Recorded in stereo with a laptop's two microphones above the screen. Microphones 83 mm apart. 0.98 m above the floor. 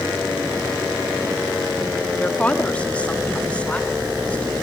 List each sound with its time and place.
2.2 s a woman speaking: 15° left (ahead or behind), 1.6 m